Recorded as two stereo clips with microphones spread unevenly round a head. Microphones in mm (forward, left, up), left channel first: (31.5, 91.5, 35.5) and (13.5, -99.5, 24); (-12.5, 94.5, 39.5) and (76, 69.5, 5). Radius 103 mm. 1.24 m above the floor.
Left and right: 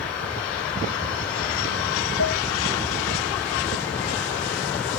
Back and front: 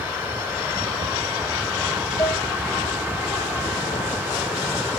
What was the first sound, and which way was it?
Dishes clattering, 120° left.